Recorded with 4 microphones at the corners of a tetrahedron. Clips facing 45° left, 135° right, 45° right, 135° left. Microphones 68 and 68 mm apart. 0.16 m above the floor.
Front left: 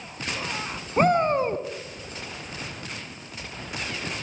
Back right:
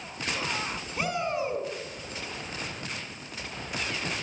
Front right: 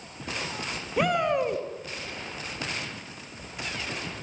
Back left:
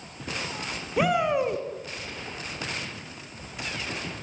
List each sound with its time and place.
1.0 s a shout: 50° left, 2 m